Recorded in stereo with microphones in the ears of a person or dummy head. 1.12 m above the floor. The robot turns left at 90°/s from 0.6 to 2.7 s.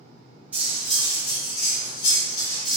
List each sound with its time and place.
0.5 s cutlery clinking: 175° right, 1.1 m; by 2.8 s straight ahead, 1.1 m